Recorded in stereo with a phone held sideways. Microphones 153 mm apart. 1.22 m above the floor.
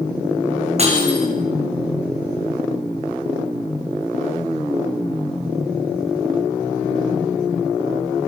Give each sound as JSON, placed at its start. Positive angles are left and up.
{"t": 0.8, "sound": "breaking glass", "side_deg": -45, "distance_m": 7.5}